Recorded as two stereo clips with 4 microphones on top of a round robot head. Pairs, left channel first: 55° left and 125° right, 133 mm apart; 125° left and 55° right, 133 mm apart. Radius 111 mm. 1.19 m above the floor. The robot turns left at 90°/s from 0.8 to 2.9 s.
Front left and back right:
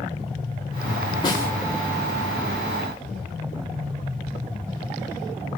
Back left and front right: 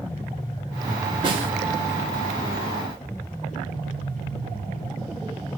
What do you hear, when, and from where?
1.2 s a snare drum: straight ahead, 3 m; by 1.5 s 25° right, 3 m